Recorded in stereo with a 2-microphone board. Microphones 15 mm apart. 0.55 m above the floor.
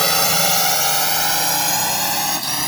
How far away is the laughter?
No laughter in this recording.